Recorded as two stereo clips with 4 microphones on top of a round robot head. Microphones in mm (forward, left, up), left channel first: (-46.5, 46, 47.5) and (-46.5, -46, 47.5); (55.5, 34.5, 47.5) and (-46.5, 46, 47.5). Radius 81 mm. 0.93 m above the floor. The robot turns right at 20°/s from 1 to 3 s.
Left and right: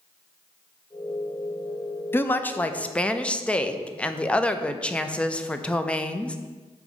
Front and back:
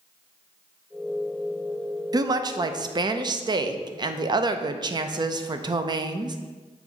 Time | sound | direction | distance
2.1 | a woman speaking | 145° left | 0.6 m